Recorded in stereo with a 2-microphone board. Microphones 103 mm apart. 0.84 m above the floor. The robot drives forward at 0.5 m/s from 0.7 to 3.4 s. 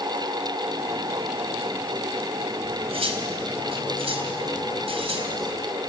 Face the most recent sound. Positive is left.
turn(degrees=-65)  # may be behind; listen again after turning